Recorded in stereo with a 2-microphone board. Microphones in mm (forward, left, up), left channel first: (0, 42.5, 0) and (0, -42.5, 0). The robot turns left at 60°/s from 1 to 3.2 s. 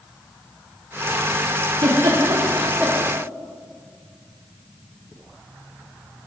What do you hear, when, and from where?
1.8 s a giggle: 85° right, 1.3 m; by 3.0 s 15° right (ahead or behind), 1.3 m